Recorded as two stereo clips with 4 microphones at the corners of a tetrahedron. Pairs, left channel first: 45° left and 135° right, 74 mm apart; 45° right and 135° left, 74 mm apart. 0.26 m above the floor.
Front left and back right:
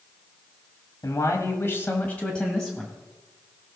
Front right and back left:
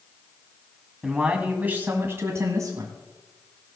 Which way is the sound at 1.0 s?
55° left.